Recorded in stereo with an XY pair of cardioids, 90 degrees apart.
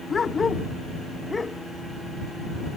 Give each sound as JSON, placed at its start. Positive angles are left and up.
{"t": 0.1, "sound": "a dog barking", "azimuth_deg": 40}